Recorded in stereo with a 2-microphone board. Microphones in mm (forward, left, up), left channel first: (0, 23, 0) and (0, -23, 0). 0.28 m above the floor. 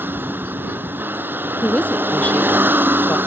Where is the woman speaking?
30° left (ahead or behind).